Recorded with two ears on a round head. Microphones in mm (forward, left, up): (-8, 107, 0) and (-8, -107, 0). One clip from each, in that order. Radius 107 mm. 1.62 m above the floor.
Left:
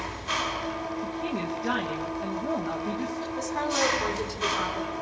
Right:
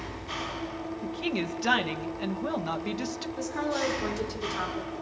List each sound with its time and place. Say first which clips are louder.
0.0 s an engine running: left 6 dB; 60° left (ahead or behind), 4.5 m
1.0 s a woman speaking: even; 70° right (ahead or behind), 2 m
3.4 s a woman speaking: left 3 dB; 10° left (ahead or behind), 4 m